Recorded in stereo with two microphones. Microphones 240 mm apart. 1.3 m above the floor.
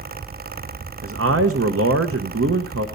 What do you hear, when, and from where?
1.0 s a man speaking: 85° right, 0.9 m